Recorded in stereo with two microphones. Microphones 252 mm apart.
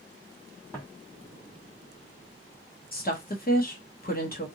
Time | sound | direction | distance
0.7 | footsteps | 5° left (ahead or behind) | 1.6 m
2.9 | a woman speaking | 35° left (ahead or behind) | 0.9 m